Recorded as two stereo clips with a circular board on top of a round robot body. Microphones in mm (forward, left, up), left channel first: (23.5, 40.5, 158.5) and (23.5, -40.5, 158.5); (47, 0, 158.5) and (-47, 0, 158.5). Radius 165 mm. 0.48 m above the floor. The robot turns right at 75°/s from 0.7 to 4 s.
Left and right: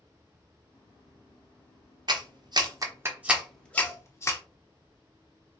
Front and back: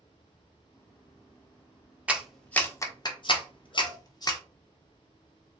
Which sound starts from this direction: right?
A clap, at 2.1 s.